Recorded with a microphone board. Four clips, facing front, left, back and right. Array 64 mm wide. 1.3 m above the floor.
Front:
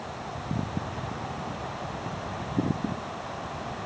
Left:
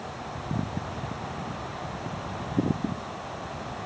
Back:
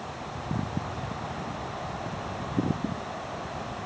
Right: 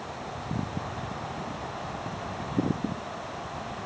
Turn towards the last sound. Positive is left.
No sound to turn to.